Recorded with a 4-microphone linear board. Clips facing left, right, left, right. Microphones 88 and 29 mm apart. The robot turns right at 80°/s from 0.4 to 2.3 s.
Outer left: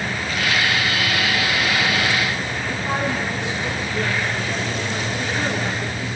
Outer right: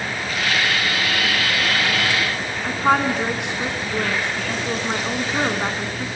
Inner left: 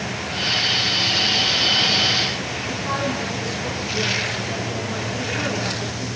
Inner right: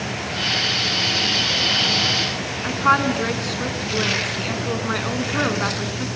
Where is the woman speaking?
70° right (ahead or behind), 3 m.